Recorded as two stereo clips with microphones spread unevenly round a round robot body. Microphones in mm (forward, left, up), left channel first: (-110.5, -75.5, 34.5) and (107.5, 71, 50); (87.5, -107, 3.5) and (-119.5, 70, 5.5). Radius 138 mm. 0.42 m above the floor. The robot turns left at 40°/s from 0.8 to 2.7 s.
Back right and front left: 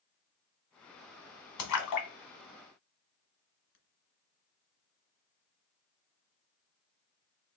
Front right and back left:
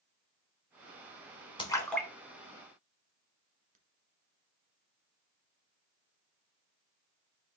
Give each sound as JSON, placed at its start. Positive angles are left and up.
{"t": 1.6, "sound": "a splash", "azimuth_deg": -115, "distance_m": 1.1}